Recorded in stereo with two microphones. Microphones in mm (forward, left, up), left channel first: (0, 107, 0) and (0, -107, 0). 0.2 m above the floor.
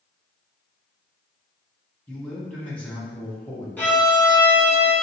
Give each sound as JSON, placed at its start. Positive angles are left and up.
{"t": 2.1, "sound": "a man speaking", "side_deg": 5, "distance_m": 1.2}
{"t": 3.8, "sound": "a violin", "side_deg": 10, "distance_m": 1.9}